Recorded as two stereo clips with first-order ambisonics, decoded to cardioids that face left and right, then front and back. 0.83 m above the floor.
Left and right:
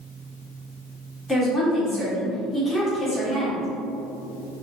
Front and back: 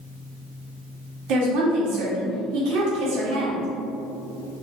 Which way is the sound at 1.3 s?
175° left.